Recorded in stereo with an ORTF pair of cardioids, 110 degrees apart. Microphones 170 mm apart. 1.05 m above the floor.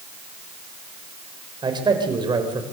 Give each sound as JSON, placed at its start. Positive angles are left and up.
{"t": 1.6, "sound": "a man speaking", "azimuth_deg": -25, "distance_m": 5.0}